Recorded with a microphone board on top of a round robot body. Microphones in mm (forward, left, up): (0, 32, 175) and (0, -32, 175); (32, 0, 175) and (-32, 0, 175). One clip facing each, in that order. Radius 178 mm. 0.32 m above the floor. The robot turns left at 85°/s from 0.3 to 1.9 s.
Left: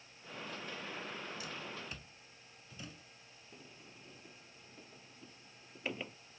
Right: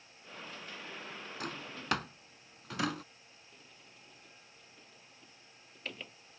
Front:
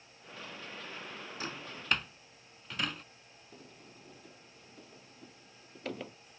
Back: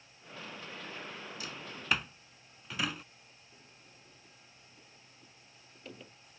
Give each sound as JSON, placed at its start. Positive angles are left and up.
{"t": 1.4, "sound": "a drawer", "azimuth_deg": -55}
{"t": 3.5, "sound": "a sliding door", "azimuth_deg": 20}